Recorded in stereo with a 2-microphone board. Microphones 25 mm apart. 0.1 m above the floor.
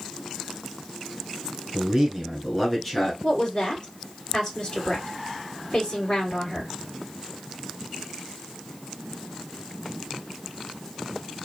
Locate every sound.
1.7 s a man speaking: 20° right (ahead or behind), 1.2 m; by 3.1 s 20° left (ahead or behind), 1.1 m
3.2 s a woman speaking: 45° left (ahead or behind), 2.5 m